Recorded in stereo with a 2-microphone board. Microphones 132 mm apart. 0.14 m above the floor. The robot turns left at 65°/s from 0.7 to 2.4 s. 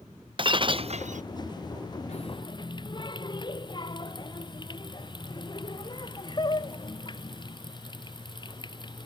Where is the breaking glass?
40° right; by 1.2 s 75° right.